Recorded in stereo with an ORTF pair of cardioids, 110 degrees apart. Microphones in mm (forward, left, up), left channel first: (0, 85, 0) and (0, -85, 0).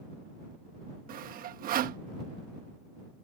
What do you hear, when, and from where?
1.1 s sawing: 60° right